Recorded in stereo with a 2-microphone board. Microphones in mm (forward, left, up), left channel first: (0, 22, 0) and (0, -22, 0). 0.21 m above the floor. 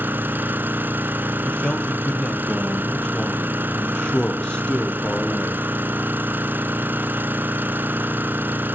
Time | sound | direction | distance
0.0 | an engine running | 50° right (ahead or behind) | 1.4 m
1.4 | a man speaking | 20° left (ahead or behind) | 4.5 m